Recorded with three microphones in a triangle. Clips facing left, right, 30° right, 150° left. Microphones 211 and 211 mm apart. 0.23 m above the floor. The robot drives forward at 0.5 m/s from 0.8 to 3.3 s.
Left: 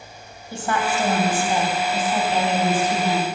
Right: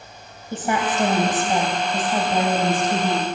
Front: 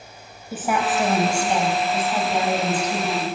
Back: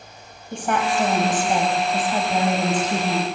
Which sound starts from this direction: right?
A woman speaking, at 0.5 s.